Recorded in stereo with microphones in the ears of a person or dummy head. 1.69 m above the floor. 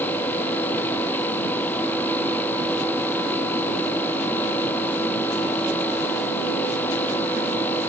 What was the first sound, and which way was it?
Only background noise.